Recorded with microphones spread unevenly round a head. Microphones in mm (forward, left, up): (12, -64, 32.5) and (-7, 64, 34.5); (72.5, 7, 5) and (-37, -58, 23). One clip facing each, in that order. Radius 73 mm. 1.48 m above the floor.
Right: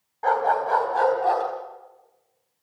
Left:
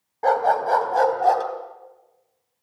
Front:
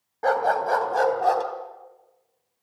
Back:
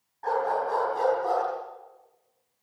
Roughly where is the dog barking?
Ahead left.